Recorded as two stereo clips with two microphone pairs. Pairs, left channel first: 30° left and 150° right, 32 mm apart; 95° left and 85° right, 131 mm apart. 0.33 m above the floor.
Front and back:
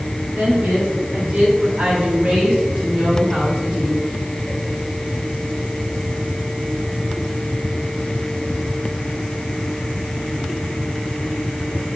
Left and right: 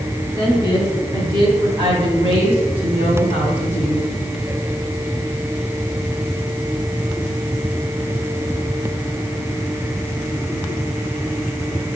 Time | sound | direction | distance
0.3 | a woman speaking | 145° right | 3 m